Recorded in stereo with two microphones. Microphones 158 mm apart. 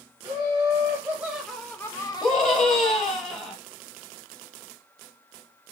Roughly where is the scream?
Centre.